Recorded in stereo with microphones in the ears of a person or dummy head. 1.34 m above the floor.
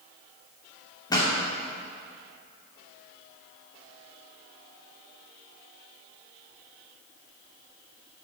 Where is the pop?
20° left (ahead or behind), 2 m.